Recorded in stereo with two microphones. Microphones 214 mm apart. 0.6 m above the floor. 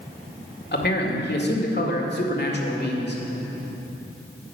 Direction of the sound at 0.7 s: 50° left (ahead or behind).